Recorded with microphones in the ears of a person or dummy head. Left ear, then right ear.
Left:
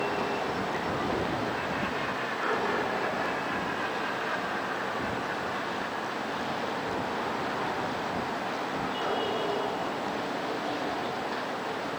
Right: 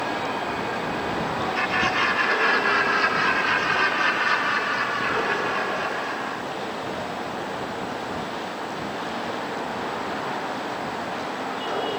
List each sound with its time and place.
1.6 s laughter: 65° right (ahead or behind); by 6.4 s 80° right